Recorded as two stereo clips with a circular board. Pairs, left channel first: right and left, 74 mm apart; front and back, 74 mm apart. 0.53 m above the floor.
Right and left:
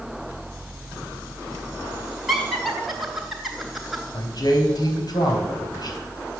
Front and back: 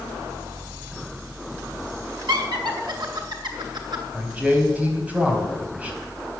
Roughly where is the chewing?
No chewing in this recording.